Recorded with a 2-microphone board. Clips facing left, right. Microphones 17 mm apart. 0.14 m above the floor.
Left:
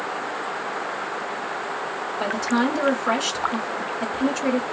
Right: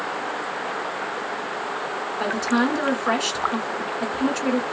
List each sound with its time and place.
2.2 s a woman speaking: 10° right (ahead or behind), 1.5 m